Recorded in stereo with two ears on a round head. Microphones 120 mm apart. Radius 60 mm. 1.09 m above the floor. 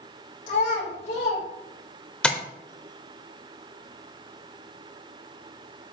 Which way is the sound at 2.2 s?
10° left (ahead or behind).